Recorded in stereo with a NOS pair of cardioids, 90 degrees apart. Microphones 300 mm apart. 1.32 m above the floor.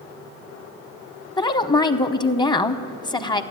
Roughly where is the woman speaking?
Ahead.